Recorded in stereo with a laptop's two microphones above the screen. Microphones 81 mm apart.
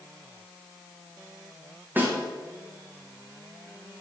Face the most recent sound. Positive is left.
turn(degrees=-20)  # may be behind; listen again after turning